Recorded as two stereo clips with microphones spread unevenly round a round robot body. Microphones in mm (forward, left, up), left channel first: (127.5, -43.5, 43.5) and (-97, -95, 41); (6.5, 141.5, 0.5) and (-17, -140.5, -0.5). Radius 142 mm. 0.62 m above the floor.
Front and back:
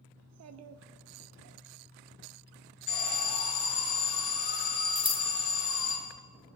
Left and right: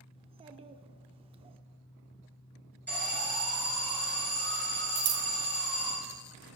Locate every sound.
0.2 s a child speaking: 165° right, 0.7 m
2.9 s an alarm: straight ahead, 5.5 m
5.0 s scissors: 55° right, 0.9 m